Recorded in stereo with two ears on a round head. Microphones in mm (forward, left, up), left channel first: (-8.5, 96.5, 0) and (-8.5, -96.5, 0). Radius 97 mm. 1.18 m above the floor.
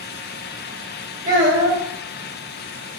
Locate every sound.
1.2 s a child speaking: 35° right (ahead or behind), 1.5 m